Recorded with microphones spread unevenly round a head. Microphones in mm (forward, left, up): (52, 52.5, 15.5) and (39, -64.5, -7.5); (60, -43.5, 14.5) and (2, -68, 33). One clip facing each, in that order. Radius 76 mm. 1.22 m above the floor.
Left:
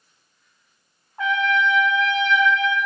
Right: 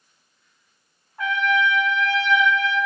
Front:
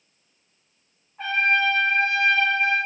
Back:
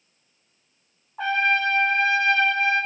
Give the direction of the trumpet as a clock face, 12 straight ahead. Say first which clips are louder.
Left 1 dB, even; 7 o'clock.